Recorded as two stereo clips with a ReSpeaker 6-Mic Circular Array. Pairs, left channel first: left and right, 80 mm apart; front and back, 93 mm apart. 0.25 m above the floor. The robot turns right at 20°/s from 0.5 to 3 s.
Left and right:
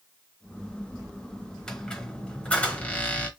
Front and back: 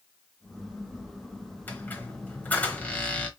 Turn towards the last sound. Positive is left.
turn(degrees=50)